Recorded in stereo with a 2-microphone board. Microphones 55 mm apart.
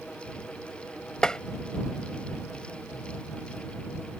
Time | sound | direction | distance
1.2 | tapping | 15° left (ahead or behind) | ?